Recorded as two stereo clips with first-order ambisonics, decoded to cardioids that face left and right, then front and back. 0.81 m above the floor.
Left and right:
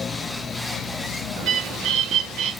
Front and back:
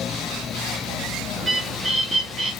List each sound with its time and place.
1.4 s a bird: 110° right, 1.5 m